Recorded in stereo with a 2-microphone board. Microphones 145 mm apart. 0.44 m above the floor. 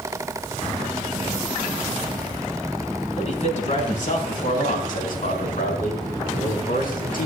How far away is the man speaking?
About 3.5 m.